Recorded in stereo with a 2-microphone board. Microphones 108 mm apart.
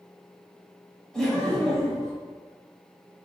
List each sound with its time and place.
1.1 s laughter: 5° left (ahead or behind), 1.3 m